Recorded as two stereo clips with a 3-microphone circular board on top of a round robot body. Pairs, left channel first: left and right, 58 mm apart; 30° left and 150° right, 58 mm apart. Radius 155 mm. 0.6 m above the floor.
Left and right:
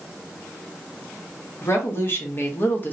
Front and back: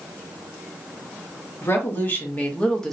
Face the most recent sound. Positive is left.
turn(degrees=105)